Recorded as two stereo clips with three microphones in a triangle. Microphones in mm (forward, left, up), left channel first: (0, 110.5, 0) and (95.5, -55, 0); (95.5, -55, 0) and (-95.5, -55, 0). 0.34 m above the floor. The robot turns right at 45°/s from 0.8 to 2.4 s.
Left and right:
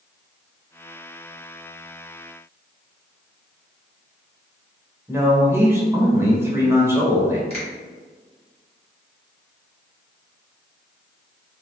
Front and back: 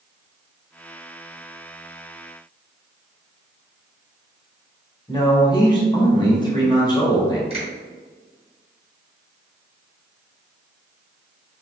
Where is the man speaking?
5° right, 0.9 m.